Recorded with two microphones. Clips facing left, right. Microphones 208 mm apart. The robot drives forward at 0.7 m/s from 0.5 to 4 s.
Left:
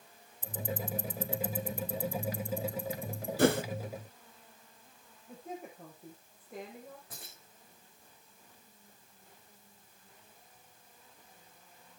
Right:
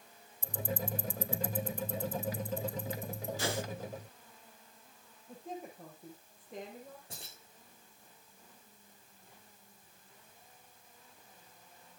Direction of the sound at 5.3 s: Centre (ahead or behind).